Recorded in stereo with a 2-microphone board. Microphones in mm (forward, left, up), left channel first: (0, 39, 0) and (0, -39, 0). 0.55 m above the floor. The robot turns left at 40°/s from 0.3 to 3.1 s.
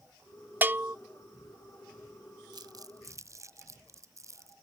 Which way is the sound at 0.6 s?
25° right (ahead or behind).